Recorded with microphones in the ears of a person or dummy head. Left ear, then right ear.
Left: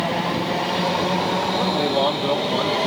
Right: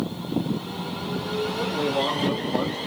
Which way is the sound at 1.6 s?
55° left (ahead or behind).